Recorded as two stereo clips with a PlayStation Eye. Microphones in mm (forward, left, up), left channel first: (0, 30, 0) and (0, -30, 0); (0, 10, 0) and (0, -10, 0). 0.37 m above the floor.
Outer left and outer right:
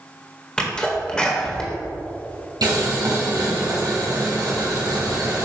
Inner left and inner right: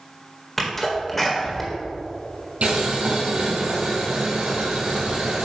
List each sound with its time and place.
0.6 s a sneeze: 15° left (ahead or behind), 1.5 m
2.6 s boiling: 85° right, 2 m